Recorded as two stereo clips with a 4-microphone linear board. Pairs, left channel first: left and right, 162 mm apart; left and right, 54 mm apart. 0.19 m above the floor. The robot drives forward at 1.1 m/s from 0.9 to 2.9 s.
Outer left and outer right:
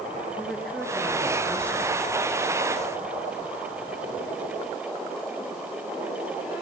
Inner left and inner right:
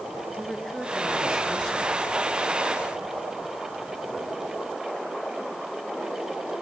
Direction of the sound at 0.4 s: 5° left (ahead or behind).